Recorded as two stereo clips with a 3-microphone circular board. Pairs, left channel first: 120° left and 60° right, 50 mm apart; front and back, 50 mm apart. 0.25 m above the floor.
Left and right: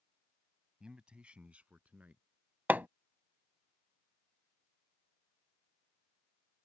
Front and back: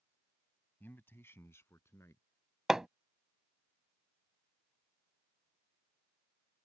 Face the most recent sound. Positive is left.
turn(degrees=-105)